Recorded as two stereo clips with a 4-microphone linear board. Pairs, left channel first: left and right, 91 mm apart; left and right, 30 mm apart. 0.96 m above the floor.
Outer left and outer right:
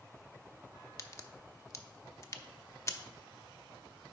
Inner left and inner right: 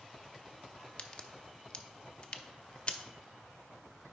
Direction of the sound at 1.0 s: 35° left (ahead or behind).